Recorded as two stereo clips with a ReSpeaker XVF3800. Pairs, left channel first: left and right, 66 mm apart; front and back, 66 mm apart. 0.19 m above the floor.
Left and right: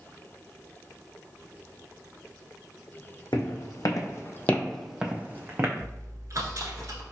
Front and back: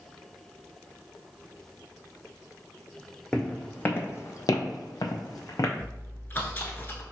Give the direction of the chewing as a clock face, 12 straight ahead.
2 o'clock.